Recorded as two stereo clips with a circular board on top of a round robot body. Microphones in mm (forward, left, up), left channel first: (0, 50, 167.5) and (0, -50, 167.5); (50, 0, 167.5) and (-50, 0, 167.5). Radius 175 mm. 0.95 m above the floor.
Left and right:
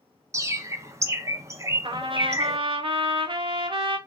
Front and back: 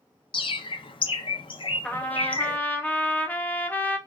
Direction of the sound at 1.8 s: 70° right.